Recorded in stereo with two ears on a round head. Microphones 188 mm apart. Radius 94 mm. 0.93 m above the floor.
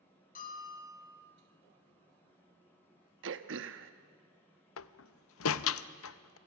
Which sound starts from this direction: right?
Throat clearing, at 3.2 s.